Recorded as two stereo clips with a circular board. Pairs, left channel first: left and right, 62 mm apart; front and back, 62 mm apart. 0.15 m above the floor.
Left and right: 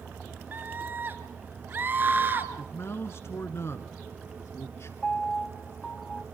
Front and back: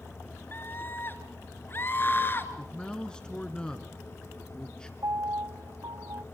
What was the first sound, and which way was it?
A scream, 45° right.